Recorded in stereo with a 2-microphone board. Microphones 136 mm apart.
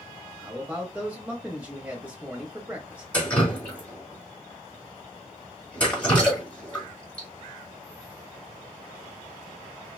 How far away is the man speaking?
About 1.0 m.